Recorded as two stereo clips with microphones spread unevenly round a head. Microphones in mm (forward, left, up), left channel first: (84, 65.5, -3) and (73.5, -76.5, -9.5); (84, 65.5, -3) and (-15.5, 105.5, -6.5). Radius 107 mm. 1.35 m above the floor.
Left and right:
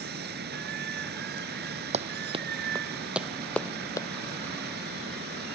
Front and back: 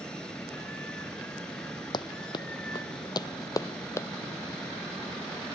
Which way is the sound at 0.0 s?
110° right.